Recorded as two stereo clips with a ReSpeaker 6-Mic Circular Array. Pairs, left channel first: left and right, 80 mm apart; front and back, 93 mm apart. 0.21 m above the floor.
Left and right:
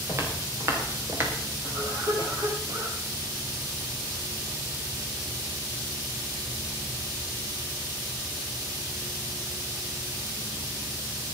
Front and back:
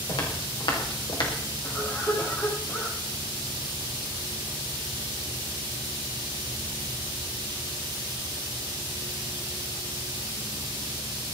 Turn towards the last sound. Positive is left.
turn(degrees=-60)